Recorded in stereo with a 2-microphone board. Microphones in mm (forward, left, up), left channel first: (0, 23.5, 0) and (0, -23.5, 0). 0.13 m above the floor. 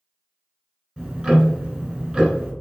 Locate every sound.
1.0 s ticking: 20° right (ahead or behind), 1.5 m